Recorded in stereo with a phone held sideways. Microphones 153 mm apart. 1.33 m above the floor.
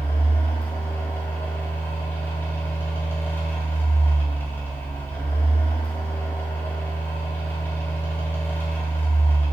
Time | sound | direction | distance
0.0 | a fan | 15° left (ahead or behind) | 2.5 m